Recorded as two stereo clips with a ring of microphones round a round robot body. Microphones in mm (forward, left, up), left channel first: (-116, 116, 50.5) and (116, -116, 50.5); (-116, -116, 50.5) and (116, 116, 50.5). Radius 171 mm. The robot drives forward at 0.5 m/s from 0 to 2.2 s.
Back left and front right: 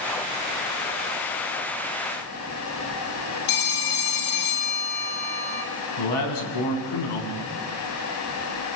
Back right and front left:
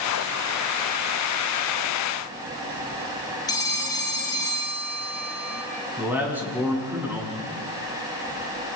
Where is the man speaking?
130° left, 6 m.